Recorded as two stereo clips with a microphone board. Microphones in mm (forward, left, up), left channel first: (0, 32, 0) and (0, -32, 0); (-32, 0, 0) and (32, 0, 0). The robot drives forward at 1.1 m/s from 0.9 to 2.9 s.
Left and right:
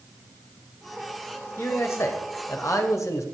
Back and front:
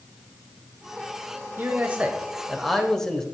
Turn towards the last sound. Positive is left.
turn(degrees=100)